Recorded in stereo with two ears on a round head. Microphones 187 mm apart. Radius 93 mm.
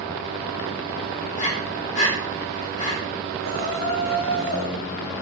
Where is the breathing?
40° left (ahead or behind), 4 m.